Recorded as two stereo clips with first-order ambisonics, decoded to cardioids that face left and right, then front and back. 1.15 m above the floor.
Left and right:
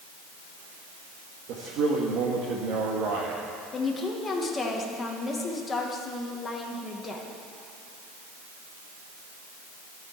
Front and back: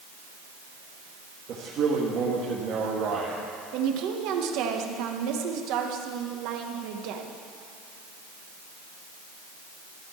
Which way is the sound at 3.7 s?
165° left.